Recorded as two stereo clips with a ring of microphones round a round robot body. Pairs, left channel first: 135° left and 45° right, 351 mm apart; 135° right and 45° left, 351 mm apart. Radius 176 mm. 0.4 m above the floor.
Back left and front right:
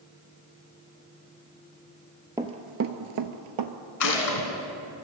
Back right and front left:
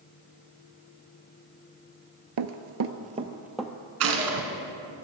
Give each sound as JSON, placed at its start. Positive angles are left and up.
{"t": 2.4, "sound": "running footsteps", "azimuth_deg": 35, "distance_m": 0.5}
{"t": 4.0, "sound": "a gunshot", "azimuth_deg": 95, "distance_m": 2.5}